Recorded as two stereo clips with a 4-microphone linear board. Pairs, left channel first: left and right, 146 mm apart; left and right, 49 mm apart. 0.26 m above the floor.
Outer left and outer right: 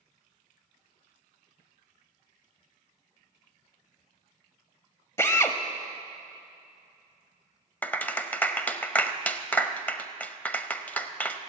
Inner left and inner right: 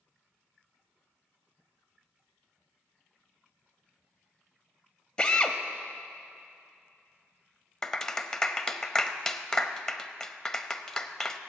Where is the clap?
10° left (ahead or behind), 0.7 m.